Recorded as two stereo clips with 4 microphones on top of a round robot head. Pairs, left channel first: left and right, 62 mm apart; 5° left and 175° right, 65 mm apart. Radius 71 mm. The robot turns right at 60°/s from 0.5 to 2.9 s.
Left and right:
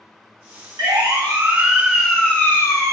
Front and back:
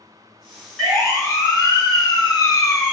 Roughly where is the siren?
Right.